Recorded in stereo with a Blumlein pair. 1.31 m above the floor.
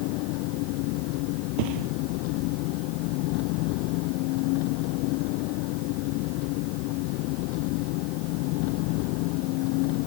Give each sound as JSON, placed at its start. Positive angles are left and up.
{"t": 0.0, "sound": "an engine running", "azimuth_deg": 45}
{"t": 1.6, "sound": "a thud", "azimuth_deg": -45}